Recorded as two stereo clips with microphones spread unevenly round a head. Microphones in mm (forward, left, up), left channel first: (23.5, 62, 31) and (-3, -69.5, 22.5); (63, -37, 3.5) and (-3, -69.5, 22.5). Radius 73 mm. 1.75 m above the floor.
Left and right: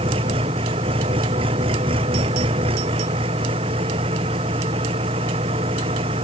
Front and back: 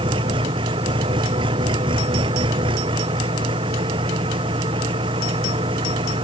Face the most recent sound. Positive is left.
turn(degrees=-155)